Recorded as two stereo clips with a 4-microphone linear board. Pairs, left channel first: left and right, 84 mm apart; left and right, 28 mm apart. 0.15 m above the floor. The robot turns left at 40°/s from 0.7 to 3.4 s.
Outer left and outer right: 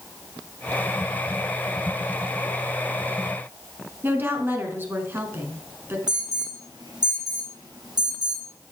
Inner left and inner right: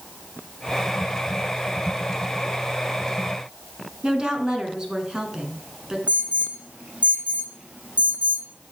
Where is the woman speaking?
25° right (ahead or behind), 1.5 m.